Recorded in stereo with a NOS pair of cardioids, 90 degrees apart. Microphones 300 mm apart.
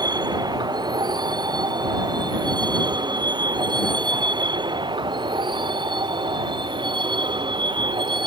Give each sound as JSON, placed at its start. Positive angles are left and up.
{"t": 0.0, "sound": "a vehicle", "azimuth_deg": -15}